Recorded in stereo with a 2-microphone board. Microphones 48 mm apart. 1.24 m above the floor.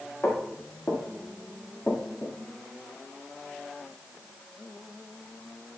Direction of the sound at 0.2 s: 40° left (ahead or behind).